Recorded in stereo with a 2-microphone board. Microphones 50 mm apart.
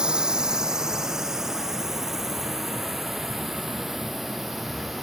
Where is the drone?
15° right (ahead or behind); by 5.0 s centre (ahead or behind).